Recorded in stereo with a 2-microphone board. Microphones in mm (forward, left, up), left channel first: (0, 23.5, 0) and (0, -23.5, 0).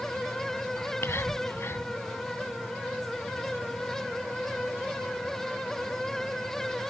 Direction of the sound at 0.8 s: 65° left (ahead or behind).